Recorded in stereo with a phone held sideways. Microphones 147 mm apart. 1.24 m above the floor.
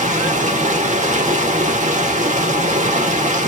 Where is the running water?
60° right (ahead or behind), 0.9 m.